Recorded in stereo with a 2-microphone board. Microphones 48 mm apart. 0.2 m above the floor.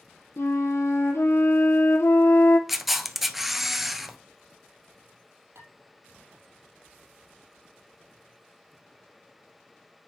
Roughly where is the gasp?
I don't hear a gasp.